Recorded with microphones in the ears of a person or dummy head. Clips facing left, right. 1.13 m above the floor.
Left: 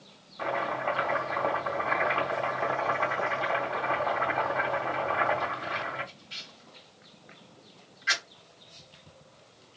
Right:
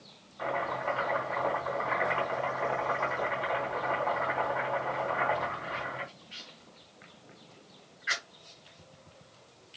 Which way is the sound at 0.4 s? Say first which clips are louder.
Left 2 dB; 65° left (ahead or behind).